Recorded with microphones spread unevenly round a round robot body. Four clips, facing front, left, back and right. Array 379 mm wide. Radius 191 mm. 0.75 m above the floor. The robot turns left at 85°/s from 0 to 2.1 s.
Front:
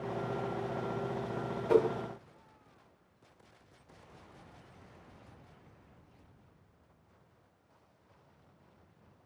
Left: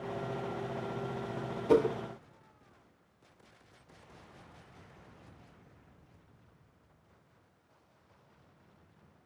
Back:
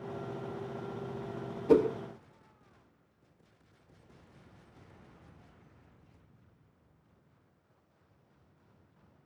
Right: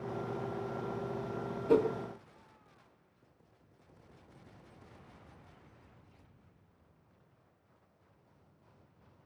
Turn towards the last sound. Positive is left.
turn(degrees=145)